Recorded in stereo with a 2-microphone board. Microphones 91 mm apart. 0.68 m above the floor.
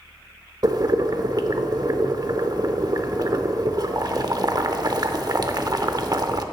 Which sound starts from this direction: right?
Boiling, at 0.6 s.